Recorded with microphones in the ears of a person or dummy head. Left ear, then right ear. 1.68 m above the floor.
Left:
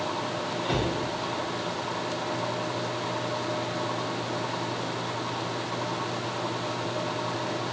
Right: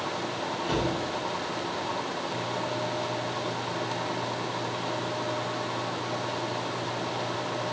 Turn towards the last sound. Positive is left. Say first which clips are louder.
# even
turn(degrees=-30)  # may be behind; listen again after turning